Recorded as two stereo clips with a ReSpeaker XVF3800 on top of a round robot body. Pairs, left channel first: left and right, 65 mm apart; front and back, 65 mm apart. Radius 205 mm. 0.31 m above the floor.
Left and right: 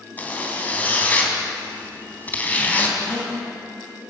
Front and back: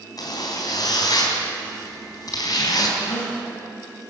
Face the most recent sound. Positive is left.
turn(degrees=20)